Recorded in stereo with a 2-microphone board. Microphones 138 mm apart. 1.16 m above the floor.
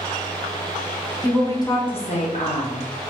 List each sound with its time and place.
1.2 s a woman speaking: 10° left (ahead or behind), 0.9 m; by 3.1 s 55° left (ahead or behind), 1.2 m